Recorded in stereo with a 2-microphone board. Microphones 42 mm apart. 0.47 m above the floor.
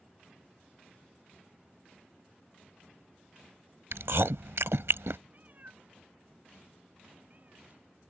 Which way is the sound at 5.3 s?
40° right (ahead or behind).